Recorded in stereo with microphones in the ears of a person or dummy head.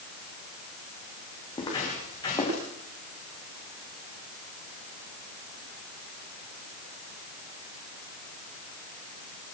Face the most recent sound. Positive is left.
turn(degrees=20)  # may be behind; listen again after turning